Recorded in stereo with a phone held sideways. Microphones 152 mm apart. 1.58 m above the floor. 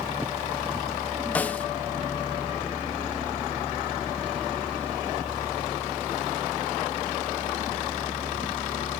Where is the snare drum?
10° left (ahead or behind), 0.6 m.